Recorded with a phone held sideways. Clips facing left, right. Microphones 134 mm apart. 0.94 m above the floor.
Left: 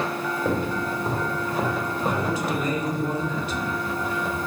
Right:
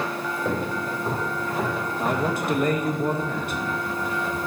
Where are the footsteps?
10° left (ahead or behind), 3.5 m; by 3.0 s 35° left (ahead or behind), 3 m.